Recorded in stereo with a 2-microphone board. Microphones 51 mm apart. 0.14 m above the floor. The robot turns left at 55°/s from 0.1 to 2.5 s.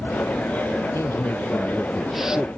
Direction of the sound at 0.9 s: 65° left.